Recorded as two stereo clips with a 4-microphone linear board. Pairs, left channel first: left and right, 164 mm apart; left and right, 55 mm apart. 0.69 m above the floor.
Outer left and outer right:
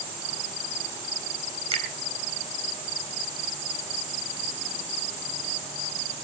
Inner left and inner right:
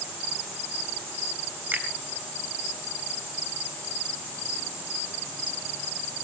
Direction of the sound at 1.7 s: 40° right (ahead or behind).